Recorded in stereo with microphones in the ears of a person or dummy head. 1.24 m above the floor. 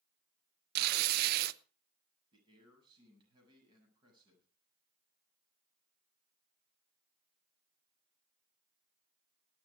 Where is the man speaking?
25° right (ahead or behind), 8 m.